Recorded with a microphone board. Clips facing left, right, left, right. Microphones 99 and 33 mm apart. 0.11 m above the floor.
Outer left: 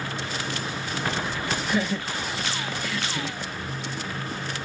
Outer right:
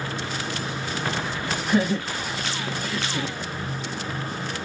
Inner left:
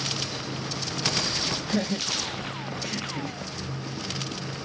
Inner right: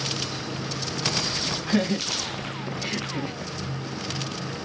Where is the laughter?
50° right (ahead or behind), 2.5 m; by 3.4 s 35° right (ahead or behind), 2 m.